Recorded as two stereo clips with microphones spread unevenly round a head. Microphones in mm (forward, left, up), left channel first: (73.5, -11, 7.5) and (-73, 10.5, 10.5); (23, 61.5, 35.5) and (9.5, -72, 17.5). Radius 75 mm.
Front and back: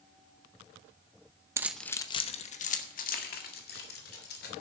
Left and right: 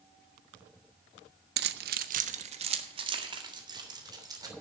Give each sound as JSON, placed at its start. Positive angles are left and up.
{"t": 1.6, "sound": "keys jangling", "azimuth_deg": -120, "distance_m": 0.7}